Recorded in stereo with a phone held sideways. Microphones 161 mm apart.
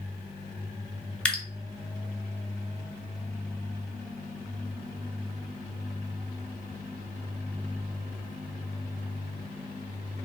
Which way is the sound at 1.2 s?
5° left (ahead or behind).